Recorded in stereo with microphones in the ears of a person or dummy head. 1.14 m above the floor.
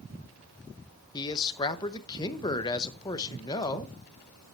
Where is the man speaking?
25° left (ahead or behind), 0.8 m.